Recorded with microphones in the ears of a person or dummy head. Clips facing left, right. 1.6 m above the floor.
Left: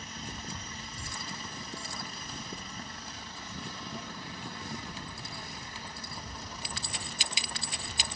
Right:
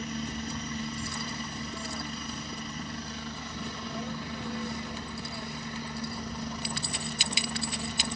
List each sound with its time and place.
0.0 s a helicopter: 60° right (ahead or behind)